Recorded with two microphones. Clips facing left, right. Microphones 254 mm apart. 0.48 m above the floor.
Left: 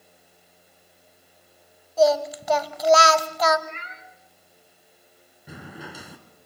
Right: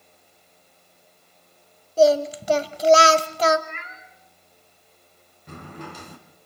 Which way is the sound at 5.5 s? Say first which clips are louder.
Right 2 dB; 10° left (ahead or behind).